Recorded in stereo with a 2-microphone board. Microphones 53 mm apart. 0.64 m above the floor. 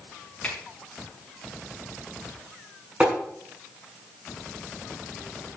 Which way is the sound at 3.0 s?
25° right (ahead or behind).